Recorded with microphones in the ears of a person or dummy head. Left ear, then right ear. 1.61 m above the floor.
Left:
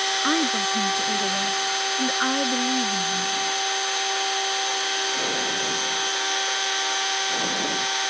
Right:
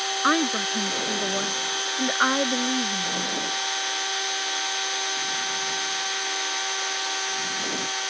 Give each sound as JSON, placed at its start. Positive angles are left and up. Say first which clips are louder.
{"t": 0.2, "sound": "a woman speaking", "louder": "even", "side_deg": -45}